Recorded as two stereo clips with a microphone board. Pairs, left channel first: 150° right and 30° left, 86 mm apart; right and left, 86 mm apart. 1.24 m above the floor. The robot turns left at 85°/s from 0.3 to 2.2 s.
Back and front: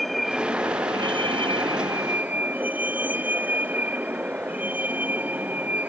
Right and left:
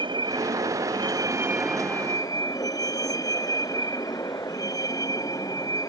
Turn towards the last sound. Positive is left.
turn(degrees=-40)